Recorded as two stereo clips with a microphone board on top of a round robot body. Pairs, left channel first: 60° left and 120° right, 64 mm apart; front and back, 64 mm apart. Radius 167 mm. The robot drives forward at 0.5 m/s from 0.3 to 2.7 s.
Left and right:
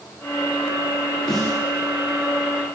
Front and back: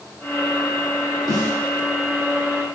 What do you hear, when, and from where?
1.3 s a snare drum: 140° left, 1.1 m; by 1.6 s 145° left, 1.2 m